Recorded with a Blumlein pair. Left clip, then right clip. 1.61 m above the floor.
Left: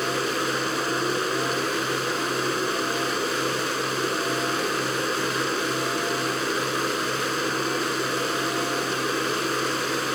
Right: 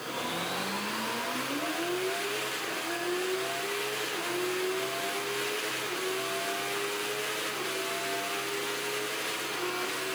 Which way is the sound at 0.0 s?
55° left.